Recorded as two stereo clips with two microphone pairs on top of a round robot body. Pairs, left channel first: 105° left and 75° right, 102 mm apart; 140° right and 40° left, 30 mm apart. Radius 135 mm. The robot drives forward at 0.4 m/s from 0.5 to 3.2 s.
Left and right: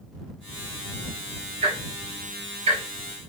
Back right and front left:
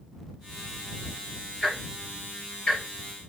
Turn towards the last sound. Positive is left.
turn(degrees=-95)